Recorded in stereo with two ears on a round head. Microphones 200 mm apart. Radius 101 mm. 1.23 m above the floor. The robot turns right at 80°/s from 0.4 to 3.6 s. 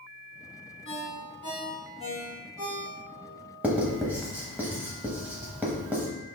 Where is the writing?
5° right (ahead or behind), 0.9 m.